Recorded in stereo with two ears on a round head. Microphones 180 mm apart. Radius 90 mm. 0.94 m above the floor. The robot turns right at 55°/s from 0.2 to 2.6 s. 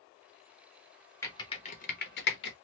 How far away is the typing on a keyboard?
About 0.9 m.